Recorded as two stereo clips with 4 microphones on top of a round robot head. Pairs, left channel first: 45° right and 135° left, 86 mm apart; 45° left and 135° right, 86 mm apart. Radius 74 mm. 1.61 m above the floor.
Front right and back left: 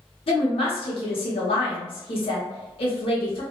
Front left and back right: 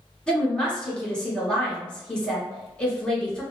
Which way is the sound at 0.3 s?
35° right.